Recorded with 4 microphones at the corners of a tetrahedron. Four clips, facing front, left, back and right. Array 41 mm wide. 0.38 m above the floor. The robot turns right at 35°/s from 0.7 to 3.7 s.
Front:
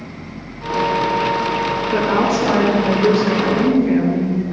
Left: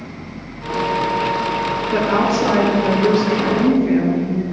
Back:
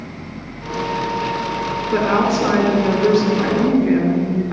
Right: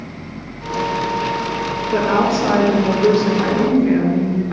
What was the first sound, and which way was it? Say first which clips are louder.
A woman speaking: right 1 dB, back 1 dB; 160° left.